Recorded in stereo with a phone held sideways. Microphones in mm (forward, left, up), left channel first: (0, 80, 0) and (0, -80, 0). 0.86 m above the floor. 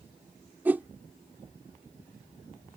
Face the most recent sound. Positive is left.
turn(degrees=-10)  # may be behind; listen again after turning